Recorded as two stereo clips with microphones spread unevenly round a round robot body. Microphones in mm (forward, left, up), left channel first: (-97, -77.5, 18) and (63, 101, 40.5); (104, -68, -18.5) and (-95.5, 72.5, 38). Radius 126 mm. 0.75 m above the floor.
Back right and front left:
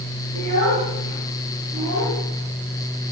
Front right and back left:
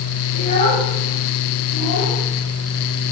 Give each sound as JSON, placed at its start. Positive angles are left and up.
{"t": 0.3, "sound": "a child speaking", "azimuth_deg": -10, "distance_m": 7.5}